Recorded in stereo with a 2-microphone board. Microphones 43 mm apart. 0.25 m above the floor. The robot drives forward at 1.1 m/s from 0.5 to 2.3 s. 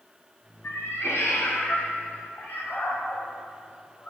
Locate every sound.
0.6 s a cat meowing: 65° left (ahead or behind), 1.4 m; by 4.1 s 45° left (ahead or behind), 1.8 m